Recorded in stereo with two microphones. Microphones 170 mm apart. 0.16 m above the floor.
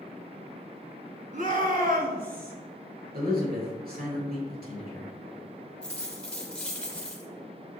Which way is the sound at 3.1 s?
65° right (ahead or behind).